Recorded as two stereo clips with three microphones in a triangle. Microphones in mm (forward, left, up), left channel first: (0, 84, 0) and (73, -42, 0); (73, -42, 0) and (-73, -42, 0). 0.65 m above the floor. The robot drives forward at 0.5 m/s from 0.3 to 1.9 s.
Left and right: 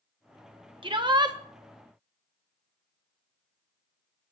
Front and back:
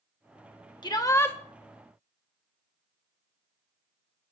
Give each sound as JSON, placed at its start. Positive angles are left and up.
{"t": 0.8, "sound": "a shout", "azimuth_deg": -35, "distance_m": 0.9}